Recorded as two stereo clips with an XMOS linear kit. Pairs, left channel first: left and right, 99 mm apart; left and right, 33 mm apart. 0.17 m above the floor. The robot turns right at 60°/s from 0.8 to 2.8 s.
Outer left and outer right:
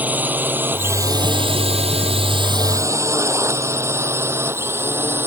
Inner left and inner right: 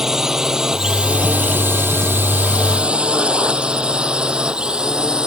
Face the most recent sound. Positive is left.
turn(degrees=-20)  # may be behind; listen again after turning